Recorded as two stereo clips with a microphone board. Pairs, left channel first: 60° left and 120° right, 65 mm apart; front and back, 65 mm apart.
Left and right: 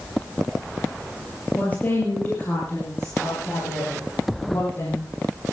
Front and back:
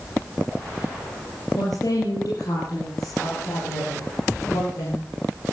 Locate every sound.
1.6 s a woman speaking: straight ahead, 5 m; by 5.1 s 5° left, 10 m